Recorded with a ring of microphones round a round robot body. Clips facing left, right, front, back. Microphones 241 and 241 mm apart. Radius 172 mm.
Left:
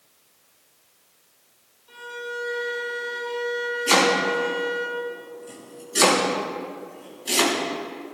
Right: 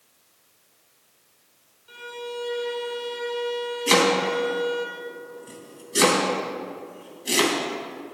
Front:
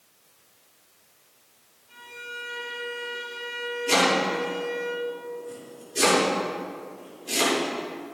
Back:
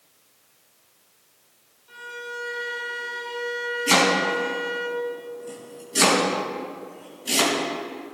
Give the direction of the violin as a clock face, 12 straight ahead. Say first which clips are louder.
Right 1 dB, back 7 dB; 5 o'clock.